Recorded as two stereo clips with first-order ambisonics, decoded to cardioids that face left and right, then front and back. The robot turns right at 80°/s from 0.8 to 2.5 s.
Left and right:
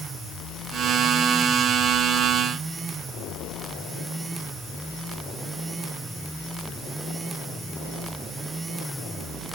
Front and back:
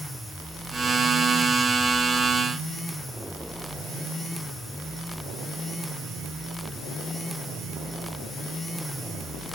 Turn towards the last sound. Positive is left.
No sound to turn to.